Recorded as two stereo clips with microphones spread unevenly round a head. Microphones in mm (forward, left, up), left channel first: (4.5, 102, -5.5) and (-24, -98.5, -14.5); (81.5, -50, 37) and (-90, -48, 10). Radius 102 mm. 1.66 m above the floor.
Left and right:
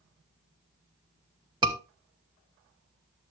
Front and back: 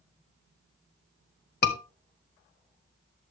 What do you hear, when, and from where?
1.6 s a scream: 30° right, 2.5 m